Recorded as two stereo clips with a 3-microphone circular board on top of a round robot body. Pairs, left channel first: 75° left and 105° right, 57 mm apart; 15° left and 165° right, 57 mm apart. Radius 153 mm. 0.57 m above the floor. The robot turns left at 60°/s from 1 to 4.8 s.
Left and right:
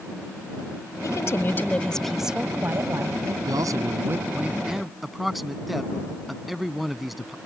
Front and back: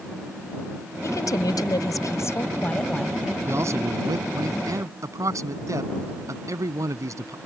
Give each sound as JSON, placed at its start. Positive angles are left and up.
{"t": 1.0, "sound": "a woman speaking", "azimuth_deg": 50}
{"t": 3.5, "sound": "a man speaking", "azimuth_deg": -115}